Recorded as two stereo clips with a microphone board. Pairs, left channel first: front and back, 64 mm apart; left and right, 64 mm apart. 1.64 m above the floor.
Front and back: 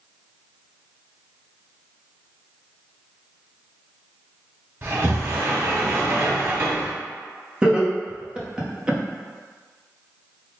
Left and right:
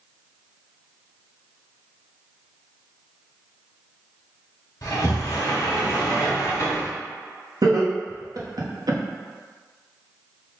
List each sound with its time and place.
4.8 s a sliding door: 130° left, 1.2 m
7.6 s laughter: 105° right, 1.0 m